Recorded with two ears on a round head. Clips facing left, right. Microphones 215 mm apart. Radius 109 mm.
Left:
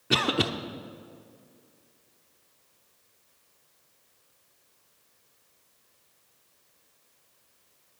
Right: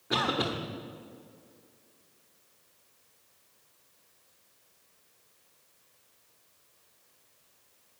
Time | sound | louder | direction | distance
0.1 | a cough | left 4 dB | 40° left (ahead or behind) | 1.0 m